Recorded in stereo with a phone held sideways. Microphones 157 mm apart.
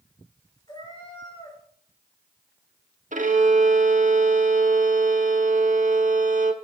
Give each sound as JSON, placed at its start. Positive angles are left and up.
{"t": 0.7, "sound": "a cat meowing", "side_deg": 25, "distance_m": 7.0}
{"t": 3.1, "sound": "a violin", "side_deg": -55, "distance_m": 1.1}